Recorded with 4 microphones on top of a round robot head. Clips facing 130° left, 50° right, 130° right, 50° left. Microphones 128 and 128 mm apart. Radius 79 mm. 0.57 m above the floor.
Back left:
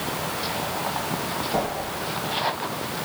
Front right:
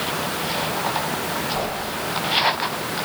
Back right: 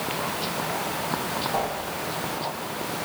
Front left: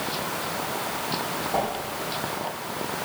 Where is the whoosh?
125° left, 6 m.